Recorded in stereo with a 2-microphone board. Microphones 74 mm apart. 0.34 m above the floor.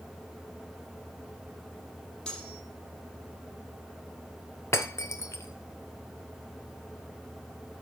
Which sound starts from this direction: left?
Breaking glass, at 4.7 s.